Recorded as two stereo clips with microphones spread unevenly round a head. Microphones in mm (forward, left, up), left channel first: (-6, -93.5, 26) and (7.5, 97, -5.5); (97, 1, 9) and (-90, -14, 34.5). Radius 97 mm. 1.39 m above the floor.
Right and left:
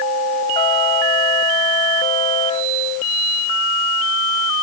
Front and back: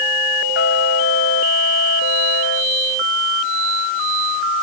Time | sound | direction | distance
0.6 | a trumpet | 30° right | ?